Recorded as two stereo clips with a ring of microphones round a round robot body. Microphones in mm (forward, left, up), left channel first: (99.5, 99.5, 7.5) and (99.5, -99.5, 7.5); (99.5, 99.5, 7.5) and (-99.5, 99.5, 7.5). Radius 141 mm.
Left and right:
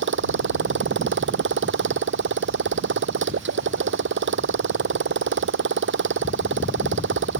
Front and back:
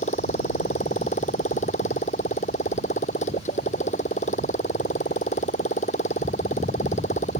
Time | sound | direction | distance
0.0 | a motorcycle | 70° right | ?